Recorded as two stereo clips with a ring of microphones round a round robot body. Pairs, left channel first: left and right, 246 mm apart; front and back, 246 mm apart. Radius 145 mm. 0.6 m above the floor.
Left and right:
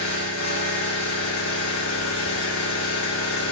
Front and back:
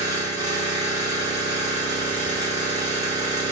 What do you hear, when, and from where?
0.0 s an engine running: 105° left, 1.7 m